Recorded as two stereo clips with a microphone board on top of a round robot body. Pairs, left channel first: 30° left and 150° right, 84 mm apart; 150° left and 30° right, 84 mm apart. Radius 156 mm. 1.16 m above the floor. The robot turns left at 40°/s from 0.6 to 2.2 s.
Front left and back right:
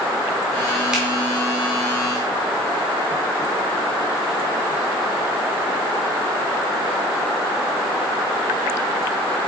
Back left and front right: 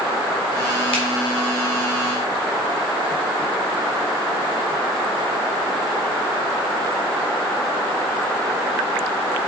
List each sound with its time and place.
0.9 s a finger snap: 125° left, 2 m